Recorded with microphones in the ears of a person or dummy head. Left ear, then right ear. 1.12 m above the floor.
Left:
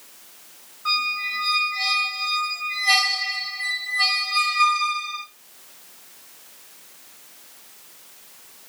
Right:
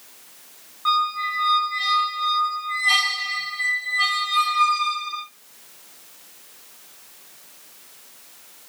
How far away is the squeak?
About 1.3 m.